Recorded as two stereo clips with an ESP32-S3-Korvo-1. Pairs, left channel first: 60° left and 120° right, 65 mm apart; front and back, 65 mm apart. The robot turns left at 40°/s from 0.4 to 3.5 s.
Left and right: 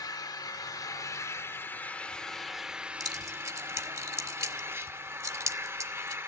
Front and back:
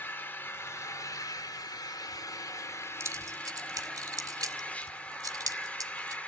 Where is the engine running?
55° left, 1.0 m; by 6.3 s 70° right, 1.0 m.